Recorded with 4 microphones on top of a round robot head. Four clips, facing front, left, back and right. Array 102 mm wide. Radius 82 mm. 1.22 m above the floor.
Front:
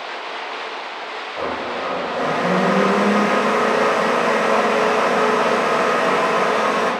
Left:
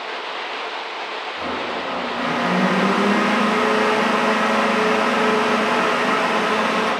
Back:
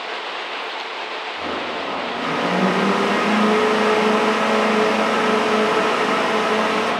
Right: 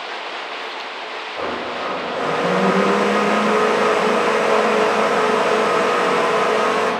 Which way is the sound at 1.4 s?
45° right.